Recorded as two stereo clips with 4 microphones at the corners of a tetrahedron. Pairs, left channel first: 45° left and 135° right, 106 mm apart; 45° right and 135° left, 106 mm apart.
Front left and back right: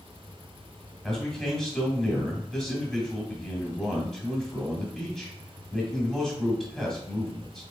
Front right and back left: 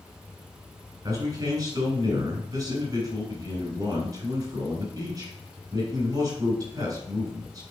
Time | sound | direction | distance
1.0 | a man speaking | 130° left | 1.9 m